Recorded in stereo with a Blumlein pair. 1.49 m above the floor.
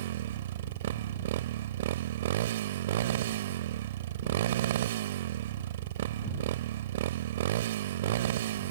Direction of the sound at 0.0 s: 55° right.